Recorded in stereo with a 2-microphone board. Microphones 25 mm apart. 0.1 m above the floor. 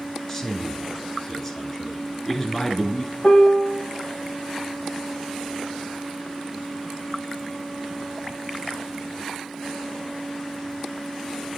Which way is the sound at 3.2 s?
30° left (ahead or behind).